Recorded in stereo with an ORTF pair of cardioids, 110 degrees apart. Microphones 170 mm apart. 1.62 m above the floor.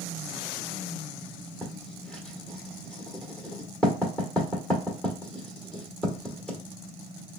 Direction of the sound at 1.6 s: 5° left.